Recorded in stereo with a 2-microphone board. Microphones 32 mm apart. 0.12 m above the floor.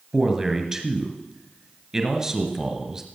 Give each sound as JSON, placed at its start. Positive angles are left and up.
{"t": 0.1, "sound": "a man speaking", "side_deg": -20, "distance_m": 2.5}